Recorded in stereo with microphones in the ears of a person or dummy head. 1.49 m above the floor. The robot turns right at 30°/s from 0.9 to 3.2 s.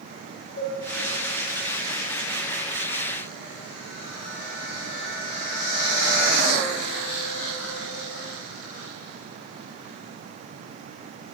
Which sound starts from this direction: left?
A cowbell, at 0.6 s.